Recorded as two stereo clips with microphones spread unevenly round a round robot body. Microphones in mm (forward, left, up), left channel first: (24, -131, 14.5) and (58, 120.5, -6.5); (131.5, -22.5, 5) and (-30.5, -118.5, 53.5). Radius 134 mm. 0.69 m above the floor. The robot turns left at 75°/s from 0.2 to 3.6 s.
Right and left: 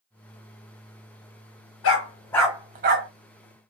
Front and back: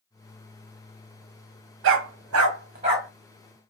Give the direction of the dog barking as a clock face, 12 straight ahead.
5 o'clock.